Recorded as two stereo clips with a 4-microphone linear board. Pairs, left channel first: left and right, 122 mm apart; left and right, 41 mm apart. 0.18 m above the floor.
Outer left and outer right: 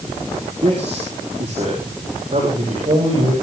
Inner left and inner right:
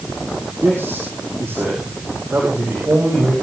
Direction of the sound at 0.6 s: 55° right (ahead or behind).